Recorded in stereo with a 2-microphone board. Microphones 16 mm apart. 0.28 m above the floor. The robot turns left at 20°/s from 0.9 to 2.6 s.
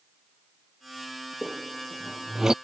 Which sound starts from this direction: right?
A squeak, at 1.4 s.